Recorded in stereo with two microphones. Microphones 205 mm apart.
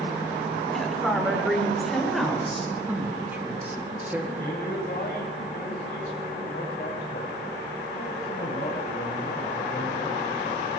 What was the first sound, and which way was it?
A woman speaking, centre (ahead or behind).